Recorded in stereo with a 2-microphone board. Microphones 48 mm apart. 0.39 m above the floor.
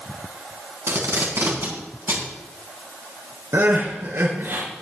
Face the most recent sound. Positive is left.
turn(degrees=-75)  # may be behind; listen again after turning